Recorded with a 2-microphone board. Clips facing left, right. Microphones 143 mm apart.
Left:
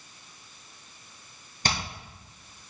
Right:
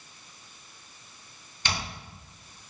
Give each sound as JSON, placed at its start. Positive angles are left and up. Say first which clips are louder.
{"t": 1.6, "sound": "hammering", "louder": "left 3 dB", "side_deg": 40, "distance_m": 8.5}